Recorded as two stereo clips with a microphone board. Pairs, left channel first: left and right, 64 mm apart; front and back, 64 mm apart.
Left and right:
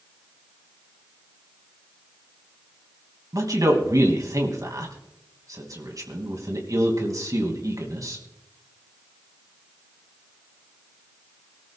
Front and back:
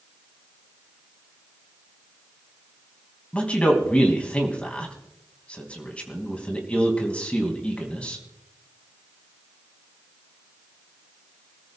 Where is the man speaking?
70° right, 3 m.